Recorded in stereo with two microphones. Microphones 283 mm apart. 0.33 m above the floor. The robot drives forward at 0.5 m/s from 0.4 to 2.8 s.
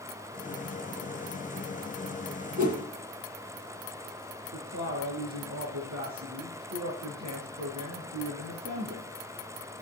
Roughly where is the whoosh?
Right.